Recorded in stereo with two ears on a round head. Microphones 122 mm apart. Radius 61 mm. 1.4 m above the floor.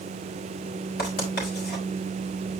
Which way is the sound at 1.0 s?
85° left.